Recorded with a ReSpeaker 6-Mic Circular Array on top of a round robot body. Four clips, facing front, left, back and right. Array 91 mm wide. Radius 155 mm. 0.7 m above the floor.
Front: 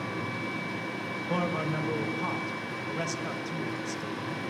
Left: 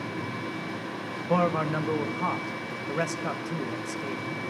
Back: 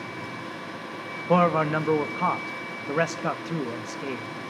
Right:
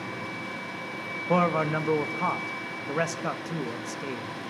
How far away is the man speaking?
About 1.6 m.